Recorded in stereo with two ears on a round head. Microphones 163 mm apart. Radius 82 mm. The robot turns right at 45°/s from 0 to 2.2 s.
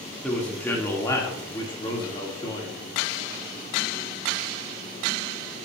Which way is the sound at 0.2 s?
5° left (ahead or behind).